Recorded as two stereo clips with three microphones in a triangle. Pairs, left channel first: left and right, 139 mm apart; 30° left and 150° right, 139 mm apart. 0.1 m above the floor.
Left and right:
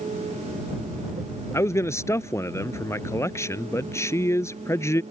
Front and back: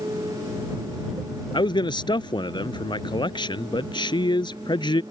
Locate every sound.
1.5 s a man speaking: 40° left